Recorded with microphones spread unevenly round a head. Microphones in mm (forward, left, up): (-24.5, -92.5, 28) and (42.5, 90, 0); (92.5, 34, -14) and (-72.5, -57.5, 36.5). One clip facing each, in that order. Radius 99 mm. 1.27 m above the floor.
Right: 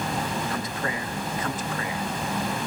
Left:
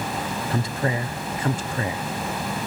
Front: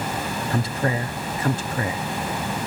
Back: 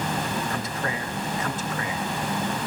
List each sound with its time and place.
0.5 s a man speaking: 35° left, 0.7 m